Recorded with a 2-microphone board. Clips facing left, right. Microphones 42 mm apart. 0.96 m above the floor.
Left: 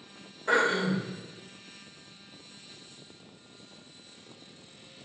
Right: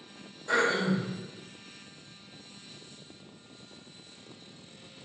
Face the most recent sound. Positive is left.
turn(degrees=75)  # may be behind; listen again after turning